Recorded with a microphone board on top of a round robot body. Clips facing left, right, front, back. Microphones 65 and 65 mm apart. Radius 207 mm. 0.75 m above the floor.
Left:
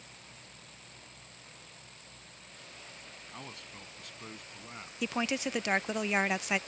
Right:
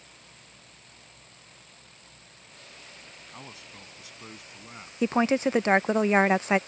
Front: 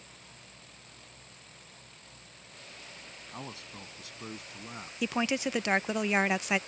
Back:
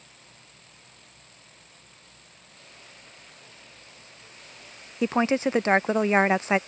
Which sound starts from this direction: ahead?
A man speaking, at 3.3 s.